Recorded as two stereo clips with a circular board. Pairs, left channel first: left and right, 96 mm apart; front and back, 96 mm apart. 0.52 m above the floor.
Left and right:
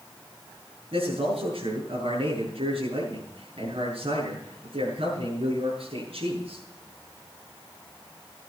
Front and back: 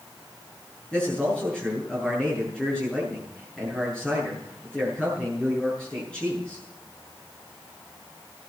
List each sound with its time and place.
0.9 s a man speaking: 80° right, 7 m